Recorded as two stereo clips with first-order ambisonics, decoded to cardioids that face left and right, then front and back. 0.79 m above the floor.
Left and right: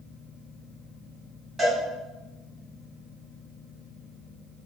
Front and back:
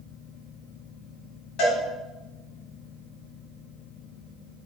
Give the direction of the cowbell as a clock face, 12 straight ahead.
1 o'clock.